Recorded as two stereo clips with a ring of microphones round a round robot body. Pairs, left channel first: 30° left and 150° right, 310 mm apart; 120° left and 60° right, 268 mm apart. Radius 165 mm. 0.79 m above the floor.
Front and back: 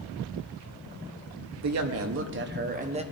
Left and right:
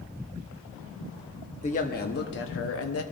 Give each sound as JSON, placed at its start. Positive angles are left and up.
{"t": 1.6, "sound": "a woman speaking", "azimuth_deg": -175, "distance_m": 1.1}